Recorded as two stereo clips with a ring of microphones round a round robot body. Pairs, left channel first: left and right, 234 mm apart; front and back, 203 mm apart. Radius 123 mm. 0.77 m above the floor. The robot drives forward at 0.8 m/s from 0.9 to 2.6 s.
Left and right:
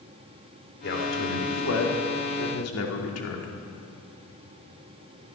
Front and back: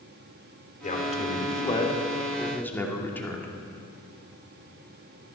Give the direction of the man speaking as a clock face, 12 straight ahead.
10 o'clock.